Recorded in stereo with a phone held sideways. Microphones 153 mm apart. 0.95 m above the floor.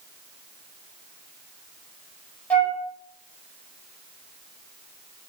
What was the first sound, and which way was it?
A flute, 10° left (ahead or behind).